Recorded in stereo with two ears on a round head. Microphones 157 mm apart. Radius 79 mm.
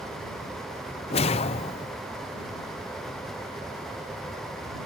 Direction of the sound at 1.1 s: 30° left (ahead or behind).